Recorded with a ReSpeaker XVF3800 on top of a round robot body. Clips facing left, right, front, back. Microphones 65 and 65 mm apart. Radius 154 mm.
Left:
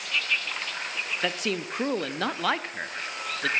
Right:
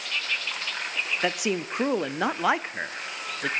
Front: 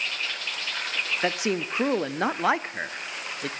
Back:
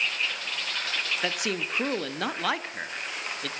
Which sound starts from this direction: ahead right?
A man speaking, at 1.2 s.